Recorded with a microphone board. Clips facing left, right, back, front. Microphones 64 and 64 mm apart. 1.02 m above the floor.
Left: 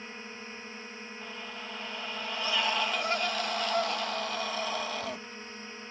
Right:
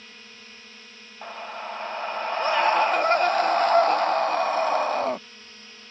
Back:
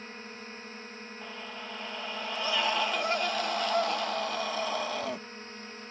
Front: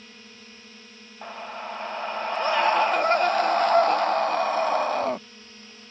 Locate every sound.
0.0 s a drone: 145° left
1.2 s a scream: 45° right